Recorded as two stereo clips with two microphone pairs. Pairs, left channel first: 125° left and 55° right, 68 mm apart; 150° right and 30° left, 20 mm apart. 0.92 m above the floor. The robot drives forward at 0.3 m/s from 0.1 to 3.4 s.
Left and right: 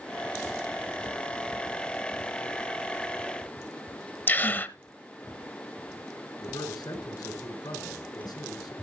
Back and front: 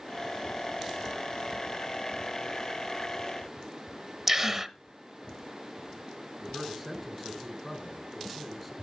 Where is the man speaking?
120° left, 3.5 m.